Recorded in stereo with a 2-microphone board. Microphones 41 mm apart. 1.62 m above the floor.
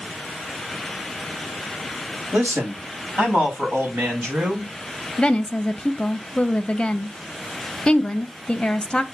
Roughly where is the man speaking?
Right.